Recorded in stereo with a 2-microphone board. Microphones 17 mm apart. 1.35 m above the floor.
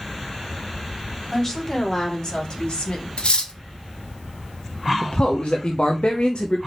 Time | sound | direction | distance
1.3 | a woman speaking | 20° left (ahead or behind) | 3 m
3.2 | cutlery clinking | 65° left (ahead or behind) | 1.0 m
5.0 | a man speaking | 75° left (ahead or behind) | 0.9 m